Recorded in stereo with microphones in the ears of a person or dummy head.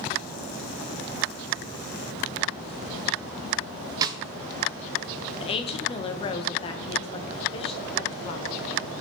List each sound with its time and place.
4.0 s a snare drum: 20° right (ahead or behind), 0.9 m
5.4 s a woman speaking: 30° left (ahead or behind), 1.4 m